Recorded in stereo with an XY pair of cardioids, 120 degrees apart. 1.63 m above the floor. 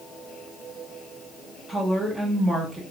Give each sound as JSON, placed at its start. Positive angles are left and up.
{"t": 1.7, "sound": "a woman speaking", "azimuth_deg": -15, "distance_m": 1.0}